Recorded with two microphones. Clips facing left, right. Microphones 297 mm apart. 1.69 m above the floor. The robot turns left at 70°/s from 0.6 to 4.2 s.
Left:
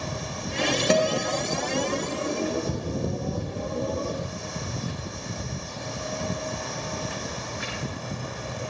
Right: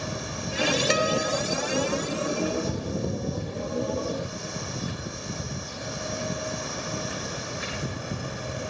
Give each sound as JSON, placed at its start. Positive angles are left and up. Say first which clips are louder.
{"t": 0.9, "sound": "a guitar", "louder": "left 2 dB", "azimuth_deg": 60, "distance_m": 1.0}